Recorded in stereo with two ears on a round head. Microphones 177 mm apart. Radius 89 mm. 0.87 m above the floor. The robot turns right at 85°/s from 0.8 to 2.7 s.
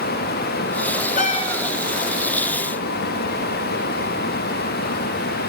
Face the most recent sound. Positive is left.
turn(degrees=-100)